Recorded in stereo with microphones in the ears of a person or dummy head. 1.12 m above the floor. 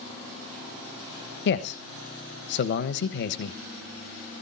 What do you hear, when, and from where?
1.4 s a man speaking: 55° left (ahead or behind), 1.2 m